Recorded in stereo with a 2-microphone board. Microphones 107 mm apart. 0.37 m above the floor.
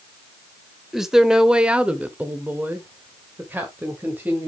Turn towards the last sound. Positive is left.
turn(degrees=-15)  # may be behind; listen again after turning